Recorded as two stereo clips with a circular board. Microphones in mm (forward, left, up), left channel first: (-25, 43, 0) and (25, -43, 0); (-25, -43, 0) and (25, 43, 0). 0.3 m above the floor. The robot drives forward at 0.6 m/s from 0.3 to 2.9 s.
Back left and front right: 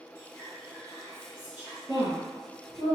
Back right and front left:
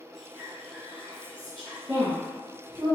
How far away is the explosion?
No explosion in this recording.